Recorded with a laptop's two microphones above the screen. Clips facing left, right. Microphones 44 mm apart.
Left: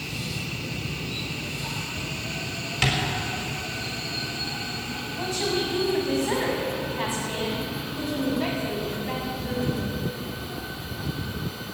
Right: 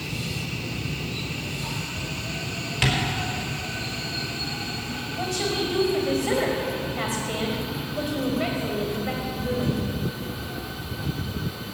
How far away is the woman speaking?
About 4.5 m.